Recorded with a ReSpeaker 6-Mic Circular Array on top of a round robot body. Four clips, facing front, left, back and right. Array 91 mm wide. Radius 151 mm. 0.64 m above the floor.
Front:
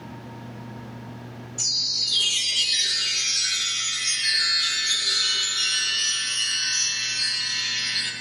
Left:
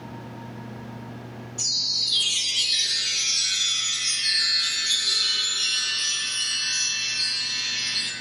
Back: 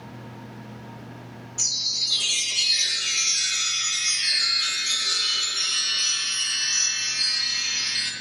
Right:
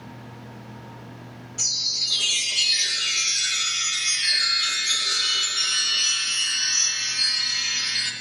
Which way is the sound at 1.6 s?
130° right.